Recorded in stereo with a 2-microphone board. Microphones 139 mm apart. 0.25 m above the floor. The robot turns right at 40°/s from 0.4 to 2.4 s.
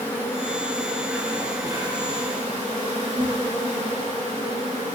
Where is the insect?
160° left, 4.5 m; by 5.0 s 120° right, 4.5 m.